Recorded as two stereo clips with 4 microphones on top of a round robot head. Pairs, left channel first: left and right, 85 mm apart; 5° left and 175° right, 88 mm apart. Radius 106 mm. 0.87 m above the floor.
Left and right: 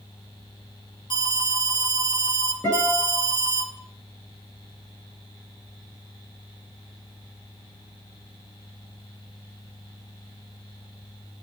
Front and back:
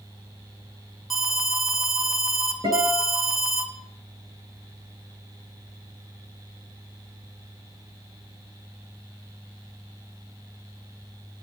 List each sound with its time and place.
1.1 s an alarm: 95° left, 2.5 m
2.6 s a guitar: 165° left, 9.5 m